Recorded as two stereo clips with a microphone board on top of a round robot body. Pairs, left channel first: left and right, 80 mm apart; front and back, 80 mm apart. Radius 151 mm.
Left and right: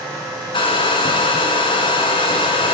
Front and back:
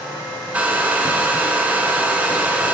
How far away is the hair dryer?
About 1.0 m.